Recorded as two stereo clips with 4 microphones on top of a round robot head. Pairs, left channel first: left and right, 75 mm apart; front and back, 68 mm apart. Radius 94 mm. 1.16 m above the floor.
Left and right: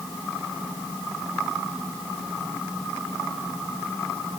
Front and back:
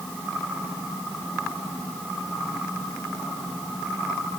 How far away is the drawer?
No drawer in this recording.